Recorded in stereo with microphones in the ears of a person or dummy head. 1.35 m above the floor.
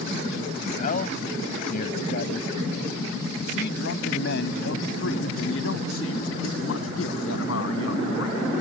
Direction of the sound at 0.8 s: 50° left (ahead or behind).